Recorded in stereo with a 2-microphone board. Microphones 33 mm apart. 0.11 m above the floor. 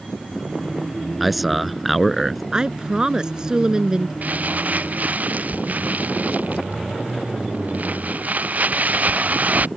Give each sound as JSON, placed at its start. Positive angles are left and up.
{"t": 1.2, "sound": "a man speaking", "side_deg": 0}
{"t": 2.5, "sound": "a woman speaking", "side_deg": -25}
{"t": 4.2, "sound": "crumpling", "side_deg": -55}